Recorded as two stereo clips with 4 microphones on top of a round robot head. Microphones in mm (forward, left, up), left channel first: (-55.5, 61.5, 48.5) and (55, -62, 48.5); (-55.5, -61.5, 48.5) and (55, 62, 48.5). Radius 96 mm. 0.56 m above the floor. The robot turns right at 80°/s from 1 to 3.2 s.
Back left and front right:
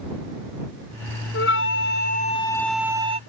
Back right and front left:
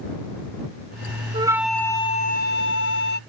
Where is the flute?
110° left; by 3.2 s 100° right.